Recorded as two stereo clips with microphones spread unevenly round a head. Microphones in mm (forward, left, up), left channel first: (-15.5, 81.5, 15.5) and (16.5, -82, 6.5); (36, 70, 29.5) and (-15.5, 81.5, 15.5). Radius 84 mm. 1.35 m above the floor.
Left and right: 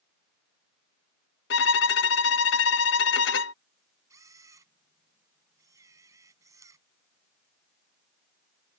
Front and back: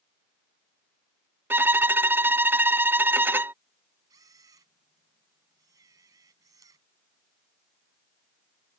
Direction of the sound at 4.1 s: 155° right.